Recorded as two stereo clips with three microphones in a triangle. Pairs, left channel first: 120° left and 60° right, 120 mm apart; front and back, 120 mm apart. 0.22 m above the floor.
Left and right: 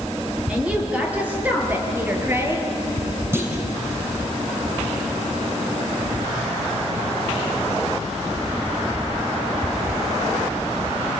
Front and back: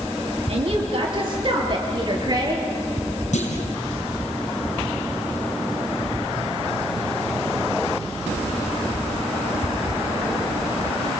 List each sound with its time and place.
0.5 s a woman speaking: 140° right, 5.5 m; by 2.6 s 125° right, 4.5 m
3.3 s a clunk: 10° left, 3.5 m